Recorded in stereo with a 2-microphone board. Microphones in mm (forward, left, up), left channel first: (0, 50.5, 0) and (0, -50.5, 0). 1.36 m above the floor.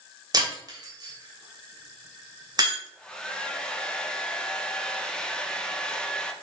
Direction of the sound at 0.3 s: 40° right (ahead or behind).